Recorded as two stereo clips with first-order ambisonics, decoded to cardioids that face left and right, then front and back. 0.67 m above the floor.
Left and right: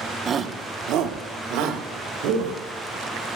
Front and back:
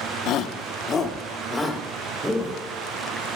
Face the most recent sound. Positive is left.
turn(degrees=-85)